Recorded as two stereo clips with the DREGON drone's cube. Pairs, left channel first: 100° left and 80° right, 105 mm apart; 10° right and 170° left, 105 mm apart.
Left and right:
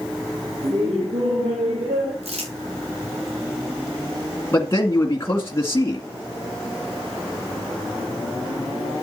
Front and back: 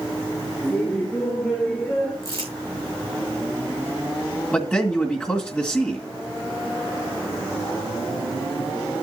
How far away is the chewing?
No chewing in this recording.